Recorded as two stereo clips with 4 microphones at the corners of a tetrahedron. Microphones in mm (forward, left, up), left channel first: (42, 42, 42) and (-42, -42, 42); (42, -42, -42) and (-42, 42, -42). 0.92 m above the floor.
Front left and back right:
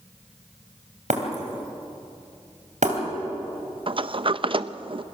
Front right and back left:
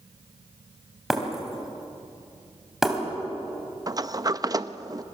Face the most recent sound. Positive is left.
turn(degrees=-175)